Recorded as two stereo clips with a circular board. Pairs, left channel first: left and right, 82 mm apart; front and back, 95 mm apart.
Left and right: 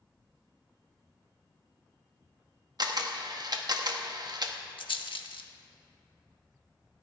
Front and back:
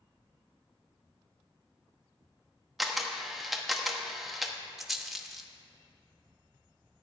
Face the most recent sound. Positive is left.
turn(degrees=90)